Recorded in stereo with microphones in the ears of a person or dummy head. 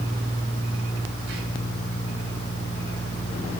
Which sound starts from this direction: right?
Whispering, at 1.3 s.